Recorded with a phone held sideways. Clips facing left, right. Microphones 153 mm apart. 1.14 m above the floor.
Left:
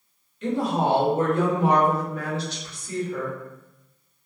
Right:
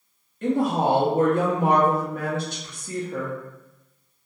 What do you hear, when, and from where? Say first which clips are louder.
0.4 s a woman speaking: right 2 dB; 50° right (ahead or behind), 0.9 m